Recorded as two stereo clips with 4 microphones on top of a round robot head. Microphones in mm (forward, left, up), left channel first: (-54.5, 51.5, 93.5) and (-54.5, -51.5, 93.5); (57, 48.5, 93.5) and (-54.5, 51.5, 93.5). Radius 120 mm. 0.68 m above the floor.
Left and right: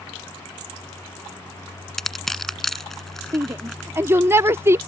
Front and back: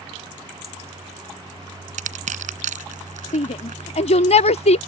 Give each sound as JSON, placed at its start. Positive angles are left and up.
{"t": 2.0, "sound": "crushing", "azimuth_deg": 180}
{"t": 3.3, "sound": "a shout", "azimuth_deg": -20}